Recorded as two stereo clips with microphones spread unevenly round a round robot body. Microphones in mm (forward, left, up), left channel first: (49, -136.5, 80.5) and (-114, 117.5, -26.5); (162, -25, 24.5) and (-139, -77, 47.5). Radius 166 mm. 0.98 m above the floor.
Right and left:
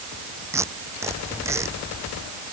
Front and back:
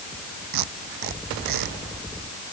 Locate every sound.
0.5 s tape being pulled: 155° right